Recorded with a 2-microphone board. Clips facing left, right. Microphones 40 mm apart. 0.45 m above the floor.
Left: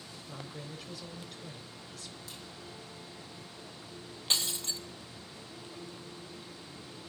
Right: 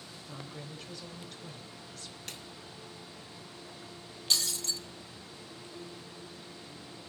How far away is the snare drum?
About 1.3 m.